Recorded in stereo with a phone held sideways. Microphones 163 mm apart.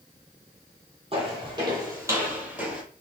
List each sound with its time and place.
1.1 s footsteps: 35° right (ahead or behind), 2 m; by 2.8 s 5° right (ahead or behind), 2 m